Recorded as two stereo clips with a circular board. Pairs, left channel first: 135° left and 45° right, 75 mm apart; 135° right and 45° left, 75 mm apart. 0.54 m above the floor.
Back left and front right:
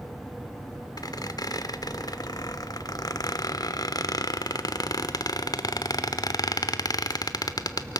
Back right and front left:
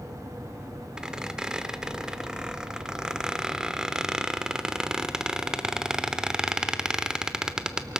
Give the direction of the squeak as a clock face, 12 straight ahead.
8 o'clock.